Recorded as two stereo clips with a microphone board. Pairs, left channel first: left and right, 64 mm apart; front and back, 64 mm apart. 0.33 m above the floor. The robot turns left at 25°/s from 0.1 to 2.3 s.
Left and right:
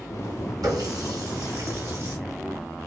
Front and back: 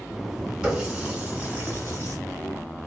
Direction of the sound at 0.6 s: 100° right.